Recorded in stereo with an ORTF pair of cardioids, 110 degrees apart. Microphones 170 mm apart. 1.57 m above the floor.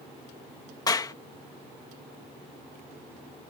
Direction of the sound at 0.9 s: 25° left.